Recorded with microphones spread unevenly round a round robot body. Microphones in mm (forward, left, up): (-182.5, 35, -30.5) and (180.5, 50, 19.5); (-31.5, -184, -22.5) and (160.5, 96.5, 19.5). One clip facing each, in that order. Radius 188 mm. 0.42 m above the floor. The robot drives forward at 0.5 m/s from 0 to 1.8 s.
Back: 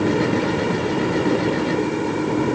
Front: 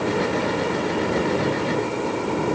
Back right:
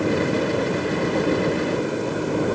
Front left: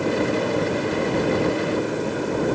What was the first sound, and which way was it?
Only background noise.